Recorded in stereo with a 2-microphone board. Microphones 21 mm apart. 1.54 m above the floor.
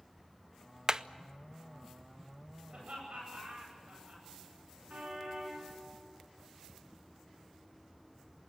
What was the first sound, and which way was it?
Hammering, 35° right (ahead or behind).